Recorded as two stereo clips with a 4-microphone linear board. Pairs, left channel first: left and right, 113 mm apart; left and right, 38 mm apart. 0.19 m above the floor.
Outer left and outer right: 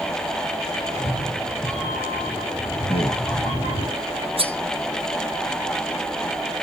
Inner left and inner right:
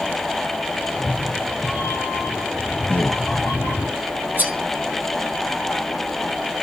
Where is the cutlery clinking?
55° right (ahead or behind), 1.9 m.